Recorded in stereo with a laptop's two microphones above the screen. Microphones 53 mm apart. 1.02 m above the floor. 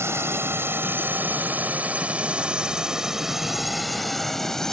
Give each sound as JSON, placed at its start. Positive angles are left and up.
{"t": 0.0, "sound": "a drone", "side_deg": -60}